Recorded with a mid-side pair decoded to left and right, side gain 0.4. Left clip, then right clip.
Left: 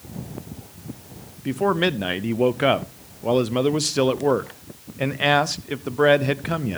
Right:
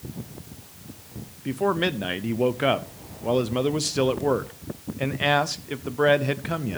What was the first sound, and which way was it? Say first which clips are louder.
A man speaking: left 3 dB; 25° left.